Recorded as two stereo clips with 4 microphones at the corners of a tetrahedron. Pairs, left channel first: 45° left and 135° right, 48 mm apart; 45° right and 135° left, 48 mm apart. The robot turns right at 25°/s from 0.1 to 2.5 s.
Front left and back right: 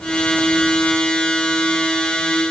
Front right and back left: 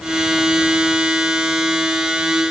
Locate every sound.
Only background noise.